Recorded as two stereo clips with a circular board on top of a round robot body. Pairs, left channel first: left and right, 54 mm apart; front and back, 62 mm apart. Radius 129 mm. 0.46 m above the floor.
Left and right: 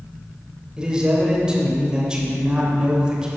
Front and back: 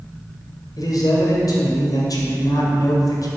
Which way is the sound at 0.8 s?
15° right.